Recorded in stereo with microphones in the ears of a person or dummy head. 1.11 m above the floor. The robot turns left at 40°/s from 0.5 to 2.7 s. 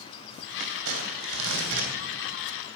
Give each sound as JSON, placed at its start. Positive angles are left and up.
{"t": 0.6, "sound": "crumpling", "azimuth_deg": -70, "distance_m": 3.0}